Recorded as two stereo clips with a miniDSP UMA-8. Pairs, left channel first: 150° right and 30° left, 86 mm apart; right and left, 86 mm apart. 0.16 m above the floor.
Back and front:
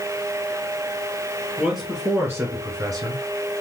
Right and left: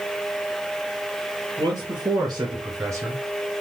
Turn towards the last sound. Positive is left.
turn(degrees=35)